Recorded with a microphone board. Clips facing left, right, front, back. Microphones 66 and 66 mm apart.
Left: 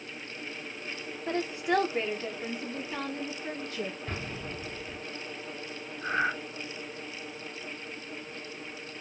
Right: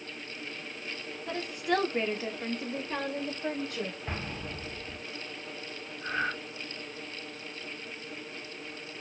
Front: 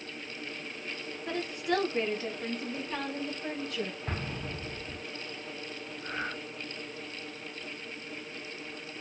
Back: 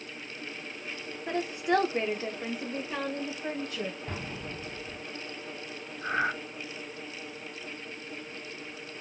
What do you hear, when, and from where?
1.3 s a woman speaking: 120° left, 0.9 m; by 4.0 s 100° right, 1.7 m
4.1 s an explosion: 25° right, 1.9 m
6.0 s breathing: 155° left, 0.5 m